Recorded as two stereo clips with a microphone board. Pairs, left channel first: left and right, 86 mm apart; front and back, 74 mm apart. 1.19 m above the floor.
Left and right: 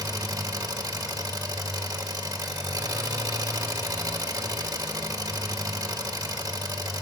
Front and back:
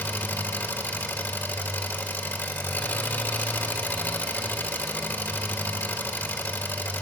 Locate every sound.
0.0 s an engine running: 55° right, 1.2 m